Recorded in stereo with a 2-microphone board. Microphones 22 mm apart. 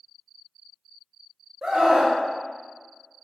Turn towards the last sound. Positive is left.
turn(degrees=-25)  # may be behind; listen again after turning